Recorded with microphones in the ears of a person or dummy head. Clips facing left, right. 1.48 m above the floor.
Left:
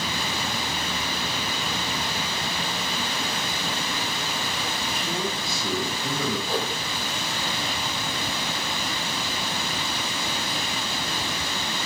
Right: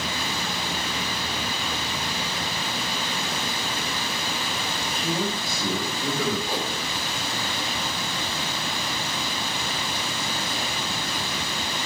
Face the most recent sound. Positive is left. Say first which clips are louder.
# left 1 dB
turn(degrees=-15)  # may be behind; listen again after turning